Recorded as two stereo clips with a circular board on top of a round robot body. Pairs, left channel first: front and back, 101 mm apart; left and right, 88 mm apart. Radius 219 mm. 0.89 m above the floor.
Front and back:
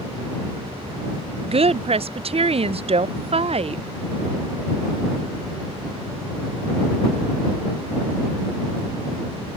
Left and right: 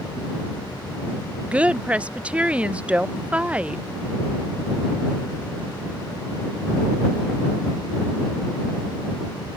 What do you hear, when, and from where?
1.4 s a woman speaking: 165° right